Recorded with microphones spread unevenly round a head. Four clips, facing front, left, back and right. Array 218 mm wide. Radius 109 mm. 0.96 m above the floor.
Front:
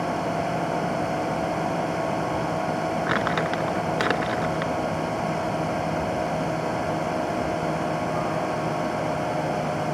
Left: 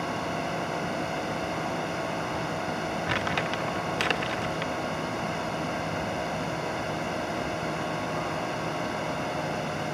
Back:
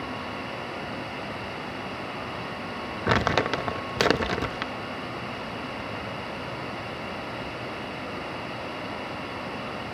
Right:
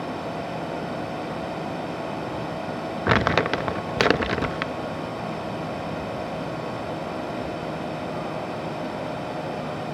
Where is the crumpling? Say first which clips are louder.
Right 12 dB, even; 105° right.